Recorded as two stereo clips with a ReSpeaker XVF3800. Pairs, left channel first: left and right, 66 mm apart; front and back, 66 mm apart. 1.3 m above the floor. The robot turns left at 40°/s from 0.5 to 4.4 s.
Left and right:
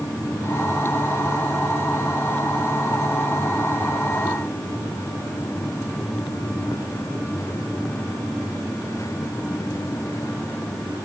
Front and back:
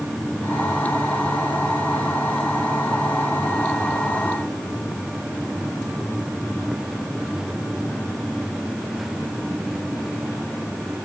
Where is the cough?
No cough in this recording.